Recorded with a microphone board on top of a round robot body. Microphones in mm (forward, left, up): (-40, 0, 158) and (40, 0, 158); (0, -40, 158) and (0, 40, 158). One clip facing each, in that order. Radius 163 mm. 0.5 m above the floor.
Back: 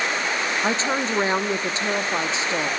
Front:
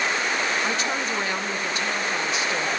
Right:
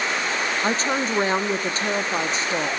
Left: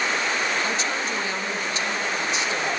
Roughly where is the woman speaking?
Behind right.